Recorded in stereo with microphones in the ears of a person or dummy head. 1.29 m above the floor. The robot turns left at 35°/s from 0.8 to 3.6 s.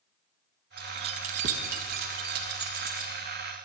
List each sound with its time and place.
0.8 s keys jangling: 30° right (ahead or behind), 0.6 m; by 3.1 s 40° right (ahead or behind), 0.6 m